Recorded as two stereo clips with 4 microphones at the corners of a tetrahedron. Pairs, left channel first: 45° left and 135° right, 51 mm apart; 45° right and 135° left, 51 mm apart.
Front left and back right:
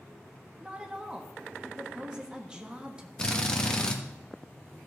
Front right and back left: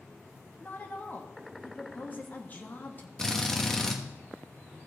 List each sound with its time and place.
0.6 s a woman speaking: 70° right, 1.2 m
3.2 s a drill: 15° left, 1.0 m